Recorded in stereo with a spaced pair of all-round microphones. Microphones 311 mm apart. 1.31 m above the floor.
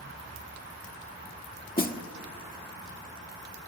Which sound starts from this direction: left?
A snare drum, at 1.8 s.